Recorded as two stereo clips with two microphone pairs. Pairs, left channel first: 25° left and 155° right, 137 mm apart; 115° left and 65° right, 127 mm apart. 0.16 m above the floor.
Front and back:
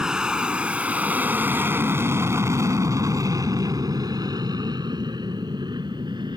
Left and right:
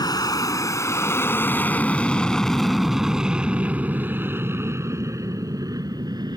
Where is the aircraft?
125° left; by 6.4 s 110° right.